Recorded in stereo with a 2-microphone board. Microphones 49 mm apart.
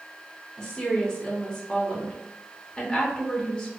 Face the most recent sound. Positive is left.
turn(degrees=15)  # may be behind; listen again after turning